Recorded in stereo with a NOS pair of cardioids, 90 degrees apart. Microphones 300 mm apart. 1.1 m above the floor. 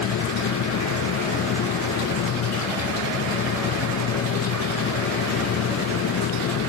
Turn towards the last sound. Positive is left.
turn(degrees=70)